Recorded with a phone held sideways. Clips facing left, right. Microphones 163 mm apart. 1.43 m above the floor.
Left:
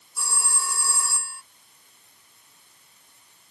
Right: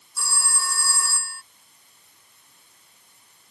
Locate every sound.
0.2 s a phone ringing: 20° left (ahead or behind)